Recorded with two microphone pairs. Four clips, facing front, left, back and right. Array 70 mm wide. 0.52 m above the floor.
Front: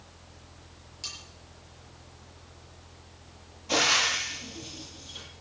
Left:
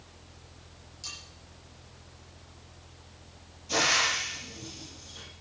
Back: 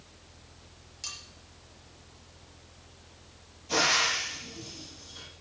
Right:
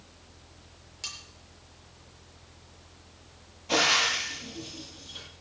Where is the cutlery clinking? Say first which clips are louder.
Right 3 dB, even; 95° right, 6.5 m.